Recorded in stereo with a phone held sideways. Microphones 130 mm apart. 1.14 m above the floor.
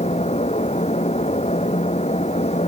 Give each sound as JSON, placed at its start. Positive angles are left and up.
{"t": 0.0, "sound": "a fan", "side_deg": 55}